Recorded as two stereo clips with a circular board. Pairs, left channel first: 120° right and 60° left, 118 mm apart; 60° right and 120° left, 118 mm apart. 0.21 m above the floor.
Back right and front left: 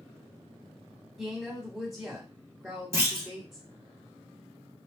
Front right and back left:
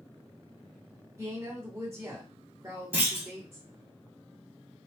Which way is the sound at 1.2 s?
145° left.